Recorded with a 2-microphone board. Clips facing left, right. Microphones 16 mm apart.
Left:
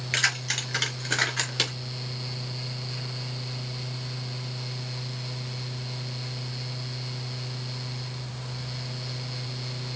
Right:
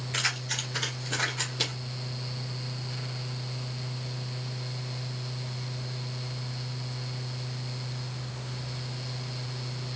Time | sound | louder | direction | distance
0.1 | keys jangling | left 4 dB | 75° left (ahead or behind) | 4 m